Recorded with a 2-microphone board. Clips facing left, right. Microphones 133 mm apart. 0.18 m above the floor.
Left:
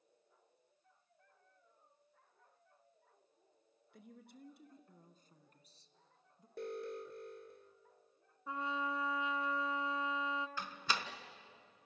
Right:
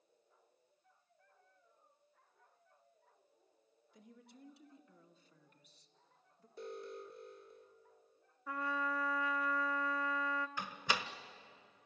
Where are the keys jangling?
I don't hear keys jangling.